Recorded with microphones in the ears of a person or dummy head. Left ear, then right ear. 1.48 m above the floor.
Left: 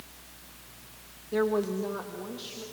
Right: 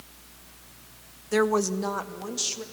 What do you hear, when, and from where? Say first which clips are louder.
1.3 s a woman speaking: right 4 dB; 60° right (ahead or behind), 0.9 m; by 2.6 s 55° right (ahead or behind), 2.5 m